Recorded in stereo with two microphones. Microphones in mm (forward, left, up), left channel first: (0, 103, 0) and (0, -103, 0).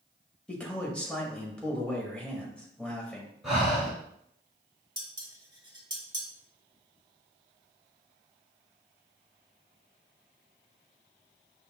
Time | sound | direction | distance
0.5 | a man speaking | 5° left (ahead or behind) | 0.9 m
3.4 | breathing | centre (ahead or behind) | 2 m
5.0 | dishes clattering | 20° right (ahead or behind) | 0.9 m